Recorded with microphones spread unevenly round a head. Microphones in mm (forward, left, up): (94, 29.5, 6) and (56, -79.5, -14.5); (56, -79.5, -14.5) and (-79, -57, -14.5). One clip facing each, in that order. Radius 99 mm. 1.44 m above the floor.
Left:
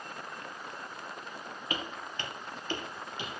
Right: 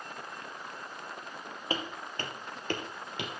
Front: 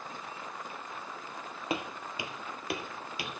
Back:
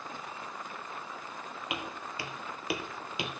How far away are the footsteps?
About 2 m.